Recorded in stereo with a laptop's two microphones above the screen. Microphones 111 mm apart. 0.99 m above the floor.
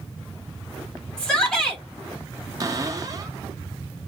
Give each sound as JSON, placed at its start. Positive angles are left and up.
{"t": 1.2, "sound": "a shout", "side_deg": 10, "distance_m": 1.8}
{"t": 2.6, "sound": "a cupboard door", "side_deg": -30, "distance_m": 0.8}